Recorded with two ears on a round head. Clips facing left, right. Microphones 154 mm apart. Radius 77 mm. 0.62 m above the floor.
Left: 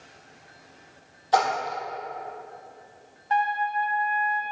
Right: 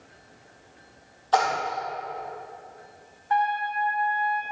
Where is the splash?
15° left (ahead or behind), 4 m.